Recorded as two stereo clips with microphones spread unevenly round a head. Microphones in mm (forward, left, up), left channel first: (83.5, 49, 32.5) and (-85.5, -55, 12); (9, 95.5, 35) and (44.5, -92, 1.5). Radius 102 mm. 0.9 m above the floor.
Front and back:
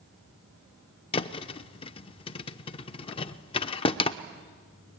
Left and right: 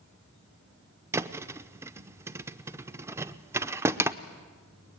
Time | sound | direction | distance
1.1 | a thud | 5° left | 0.5 m